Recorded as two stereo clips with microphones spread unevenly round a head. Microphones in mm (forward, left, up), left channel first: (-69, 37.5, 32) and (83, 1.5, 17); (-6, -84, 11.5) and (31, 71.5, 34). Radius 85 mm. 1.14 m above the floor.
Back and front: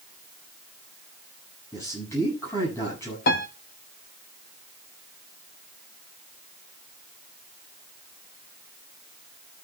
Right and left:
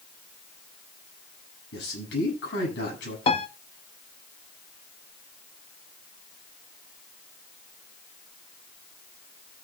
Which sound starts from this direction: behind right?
A man speaking, at 1.7 s.